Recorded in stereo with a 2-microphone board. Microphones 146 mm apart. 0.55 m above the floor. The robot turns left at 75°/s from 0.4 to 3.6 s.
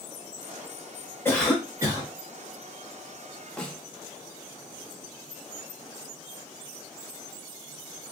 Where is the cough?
20° left, 1.8 m; by 2.1 s 45° right, 1.8 m.